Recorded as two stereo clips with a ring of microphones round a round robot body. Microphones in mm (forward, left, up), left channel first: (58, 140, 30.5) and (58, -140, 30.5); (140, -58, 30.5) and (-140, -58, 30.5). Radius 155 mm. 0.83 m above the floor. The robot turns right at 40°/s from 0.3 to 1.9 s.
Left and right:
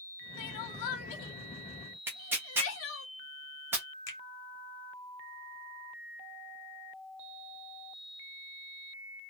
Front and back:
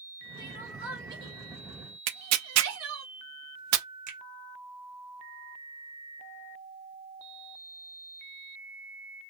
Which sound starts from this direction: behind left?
A finger snap, at 4.1 s.